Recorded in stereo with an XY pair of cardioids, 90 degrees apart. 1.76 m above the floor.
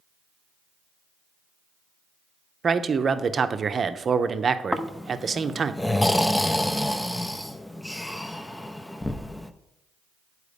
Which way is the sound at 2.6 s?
45° right.